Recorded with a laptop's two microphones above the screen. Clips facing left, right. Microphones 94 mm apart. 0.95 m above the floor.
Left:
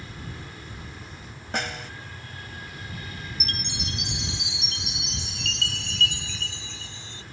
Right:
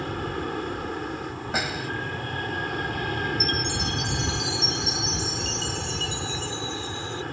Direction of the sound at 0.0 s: 60° right (ahead or behind).